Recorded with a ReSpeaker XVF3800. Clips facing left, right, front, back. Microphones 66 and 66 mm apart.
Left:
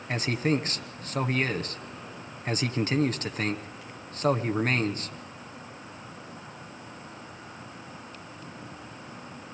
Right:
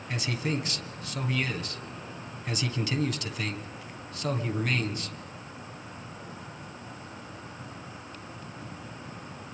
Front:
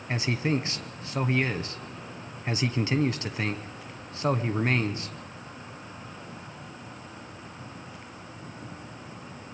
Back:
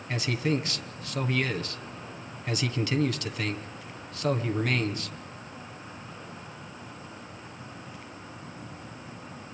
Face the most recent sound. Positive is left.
turn(degrees=55)